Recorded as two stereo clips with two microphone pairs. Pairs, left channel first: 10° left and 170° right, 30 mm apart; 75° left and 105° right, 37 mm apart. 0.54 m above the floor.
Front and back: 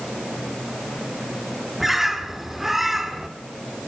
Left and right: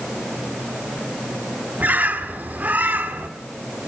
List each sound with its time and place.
1.8 s a bird: 90° right, 1.4 m